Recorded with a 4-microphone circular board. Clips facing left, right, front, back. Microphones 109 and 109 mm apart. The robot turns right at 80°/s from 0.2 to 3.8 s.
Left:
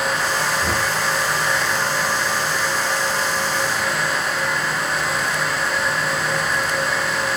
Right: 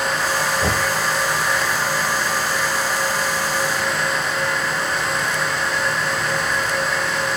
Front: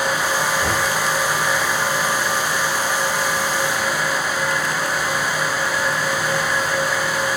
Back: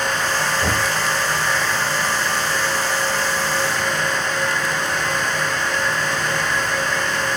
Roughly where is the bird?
No bird in this recording.